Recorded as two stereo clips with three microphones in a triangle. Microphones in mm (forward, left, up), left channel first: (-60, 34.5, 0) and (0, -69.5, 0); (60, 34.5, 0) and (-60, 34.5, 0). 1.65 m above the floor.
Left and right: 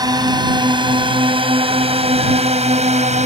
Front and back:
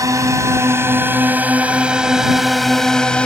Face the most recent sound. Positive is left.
turn(degrees=-80)